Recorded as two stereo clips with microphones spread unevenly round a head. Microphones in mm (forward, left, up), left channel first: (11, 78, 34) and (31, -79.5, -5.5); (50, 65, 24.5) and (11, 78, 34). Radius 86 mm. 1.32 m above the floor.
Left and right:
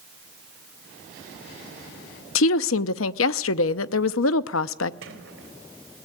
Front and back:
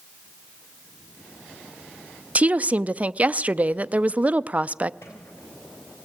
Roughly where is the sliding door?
Right.